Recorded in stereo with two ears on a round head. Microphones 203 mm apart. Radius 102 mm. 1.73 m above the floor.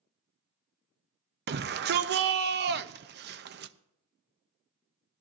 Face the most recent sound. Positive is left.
turn(degrees=-50)  # may be behind; listen again after turning